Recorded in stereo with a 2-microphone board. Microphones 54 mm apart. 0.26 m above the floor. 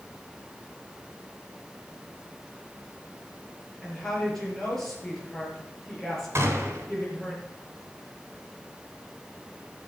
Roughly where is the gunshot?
Right.